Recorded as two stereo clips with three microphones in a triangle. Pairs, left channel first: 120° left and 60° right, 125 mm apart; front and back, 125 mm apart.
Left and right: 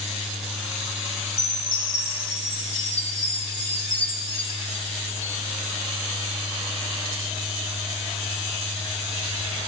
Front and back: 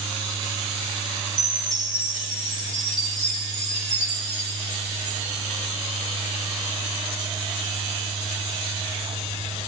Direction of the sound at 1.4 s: 55° right.